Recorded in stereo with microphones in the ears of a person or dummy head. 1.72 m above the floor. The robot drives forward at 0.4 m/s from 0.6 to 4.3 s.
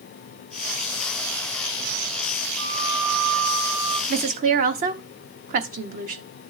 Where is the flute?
65° right (ahead or behind), 1.4 m; by 4.0 s 50° right (ahead or behind), 1.7 m.